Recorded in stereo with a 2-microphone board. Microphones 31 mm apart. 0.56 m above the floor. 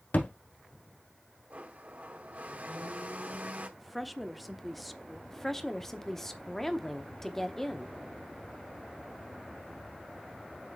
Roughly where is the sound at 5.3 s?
Centre.